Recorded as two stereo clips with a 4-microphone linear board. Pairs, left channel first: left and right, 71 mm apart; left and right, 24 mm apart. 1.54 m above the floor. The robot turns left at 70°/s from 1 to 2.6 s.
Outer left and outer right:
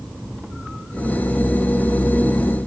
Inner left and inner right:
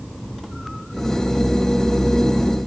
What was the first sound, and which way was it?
Only background noise.